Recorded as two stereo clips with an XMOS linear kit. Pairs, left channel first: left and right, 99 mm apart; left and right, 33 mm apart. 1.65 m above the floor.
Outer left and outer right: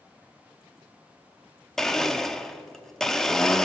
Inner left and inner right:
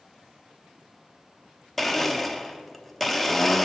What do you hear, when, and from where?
1.8 s a blender: 5° left (ahead or behind), 0.6 m